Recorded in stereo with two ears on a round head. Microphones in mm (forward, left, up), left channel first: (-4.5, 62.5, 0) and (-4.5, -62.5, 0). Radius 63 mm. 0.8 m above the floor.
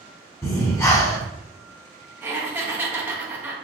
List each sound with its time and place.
0.4 s breathing: 20° left (ahead or behind), 0.8 m
2.2 s laughter: 15° right (ahead or behind), 0.9 m